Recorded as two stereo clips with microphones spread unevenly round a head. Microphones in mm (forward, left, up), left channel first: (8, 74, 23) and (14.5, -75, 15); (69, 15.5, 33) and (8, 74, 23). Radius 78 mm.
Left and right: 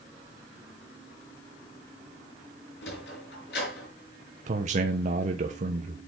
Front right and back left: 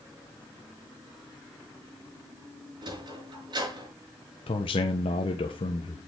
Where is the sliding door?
110° left, 5 m.